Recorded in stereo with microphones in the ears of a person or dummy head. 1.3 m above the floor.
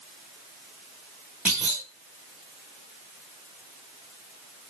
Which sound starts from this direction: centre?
A clunk, at 1.4 s.